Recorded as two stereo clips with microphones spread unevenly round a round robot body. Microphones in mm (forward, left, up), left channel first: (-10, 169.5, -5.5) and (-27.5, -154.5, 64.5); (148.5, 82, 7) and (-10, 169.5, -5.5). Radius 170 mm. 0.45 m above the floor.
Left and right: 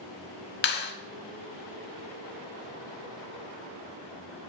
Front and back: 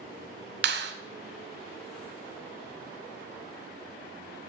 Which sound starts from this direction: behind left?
A clap, at 0.6 s.